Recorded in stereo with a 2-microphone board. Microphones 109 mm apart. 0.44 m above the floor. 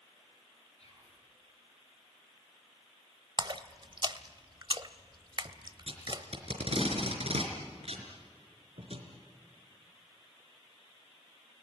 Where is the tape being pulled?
65° right (ahead or behind), 4 m.